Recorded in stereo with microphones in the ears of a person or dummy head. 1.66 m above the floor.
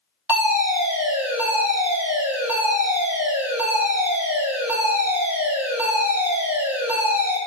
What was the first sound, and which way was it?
A fire alarm, 10° right (ahead or behind).